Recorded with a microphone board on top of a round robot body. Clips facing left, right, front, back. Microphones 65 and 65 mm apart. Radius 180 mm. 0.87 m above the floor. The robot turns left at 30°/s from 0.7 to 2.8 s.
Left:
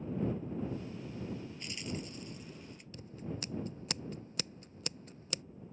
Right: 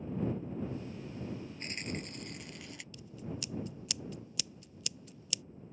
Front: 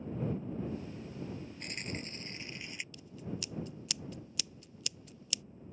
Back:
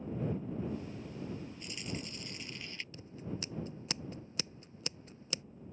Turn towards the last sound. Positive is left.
turn(degrees=130)